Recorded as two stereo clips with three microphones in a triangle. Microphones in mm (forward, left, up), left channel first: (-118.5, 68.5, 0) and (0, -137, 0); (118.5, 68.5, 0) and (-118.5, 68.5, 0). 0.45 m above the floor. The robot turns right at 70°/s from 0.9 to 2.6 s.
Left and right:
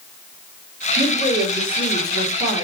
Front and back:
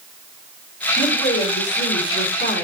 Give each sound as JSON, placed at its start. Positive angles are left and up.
{"t": 1.0, "sound": "a woman speaking", "azimuth_deg": -95, "distance_m": 3.0}